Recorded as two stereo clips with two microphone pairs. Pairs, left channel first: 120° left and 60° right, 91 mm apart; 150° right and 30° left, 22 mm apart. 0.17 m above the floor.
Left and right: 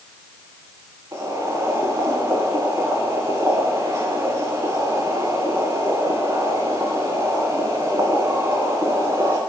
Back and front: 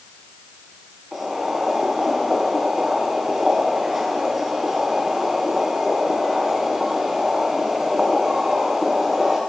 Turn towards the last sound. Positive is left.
turn(degrees=-35)